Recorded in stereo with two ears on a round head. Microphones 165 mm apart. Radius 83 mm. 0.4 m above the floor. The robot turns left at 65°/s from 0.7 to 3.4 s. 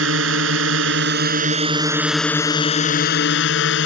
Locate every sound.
0.0 s a drone: 85° right; by 3.9 s 100° left